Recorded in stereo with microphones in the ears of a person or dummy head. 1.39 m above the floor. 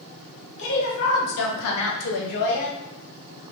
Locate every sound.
0.6 s a woman speaking: 60° left (ahead or behind), 1.4 m; by 2.8 s 45° left (ahead or behind), 0.9 m